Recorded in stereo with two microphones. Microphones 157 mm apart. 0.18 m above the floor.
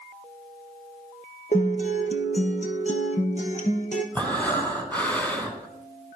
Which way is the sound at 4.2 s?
10° left (ahead or behind).